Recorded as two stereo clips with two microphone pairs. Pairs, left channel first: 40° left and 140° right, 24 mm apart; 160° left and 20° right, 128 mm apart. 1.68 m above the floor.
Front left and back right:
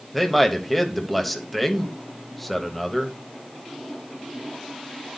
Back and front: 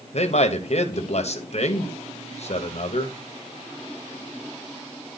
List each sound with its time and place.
0.1 s a man speaking: 125° left, 1.2 m